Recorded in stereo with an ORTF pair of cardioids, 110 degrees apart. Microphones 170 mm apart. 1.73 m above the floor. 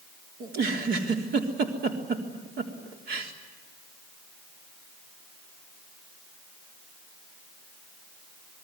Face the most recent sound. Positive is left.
turn(degrees=-70)